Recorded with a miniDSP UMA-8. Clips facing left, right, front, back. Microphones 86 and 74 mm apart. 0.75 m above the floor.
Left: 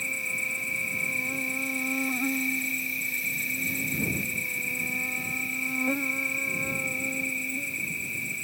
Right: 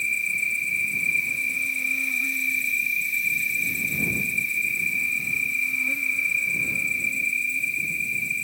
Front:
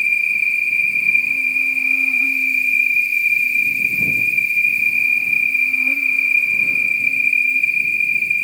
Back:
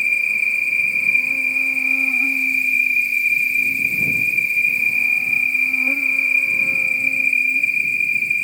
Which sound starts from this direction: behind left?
An insect, at 0.0 s.